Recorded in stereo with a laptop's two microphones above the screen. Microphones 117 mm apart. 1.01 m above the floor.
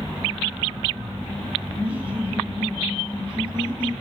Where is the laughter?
15° right (ahead or behind), 1.7 m; by 3.9 s 10° right (ahead or behind), 4.5 m.